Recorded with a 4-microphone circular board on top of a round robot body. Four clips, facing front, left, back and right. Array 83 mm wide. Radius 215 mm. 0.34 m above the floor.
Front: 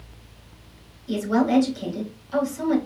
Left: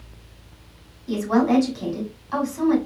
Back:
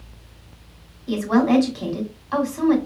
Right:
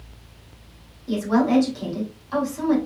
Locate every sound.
1.1 s a woman speaking: 175° left, 3 m